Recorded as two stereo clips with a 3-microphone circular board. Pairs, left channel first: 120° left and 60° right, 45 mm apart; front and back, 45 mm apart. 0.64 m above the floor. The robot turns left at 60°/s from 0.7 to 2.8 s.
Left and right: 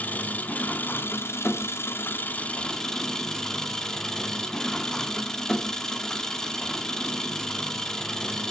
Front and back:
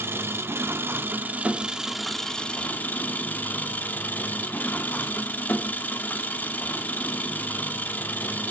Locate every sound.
0.0 s an engine running: 170° left, 0.8 m; by 8.5 s 45° left, 0.8 m